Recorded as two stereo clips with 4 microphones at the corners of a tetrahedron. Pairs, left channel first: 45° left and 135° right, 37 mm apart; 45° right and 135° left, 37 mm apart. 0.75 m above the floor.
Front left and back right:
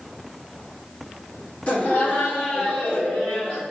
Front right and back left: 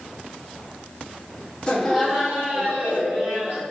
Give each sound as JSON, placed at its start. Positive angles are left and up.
{"t": 1.7, "sound": "laughter", "azimuth_deg": 15, "distance_m": 0.8}